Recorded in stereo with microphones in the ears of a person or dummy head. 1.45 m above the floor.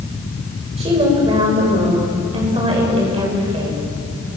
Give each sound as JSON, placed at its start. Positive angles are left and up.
{"t": 0.8, "sound": "a woman speaking", "side_deg": -25, "distance_m": 7.0}